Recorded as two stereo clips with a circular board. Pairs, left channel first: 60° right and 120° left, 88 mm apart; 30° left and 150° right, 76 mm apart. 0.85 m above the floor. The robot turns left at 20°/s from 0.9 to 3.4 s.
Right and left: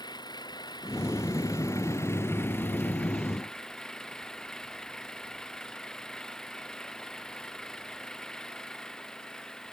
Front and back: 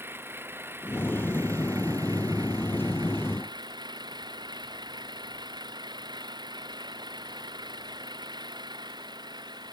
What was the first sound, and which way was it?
An engine running, 90° right.